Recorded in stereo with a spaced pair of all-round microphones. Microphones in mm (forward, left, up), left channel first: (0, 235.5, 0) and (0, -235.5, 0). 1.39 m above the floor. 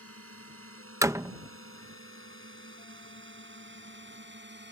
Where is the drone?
30° right (ahead or behind); by 4.7 s 20° right (ahead or behind).